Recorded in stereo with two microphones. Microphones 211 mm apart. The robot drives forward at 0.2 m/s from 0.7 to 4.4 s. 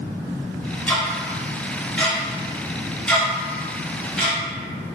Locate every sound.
0.9 s ticking: 10° left (ahead or behind), 0.7 m; by 4.4 s 5° left (ahead or behind), 1.2 m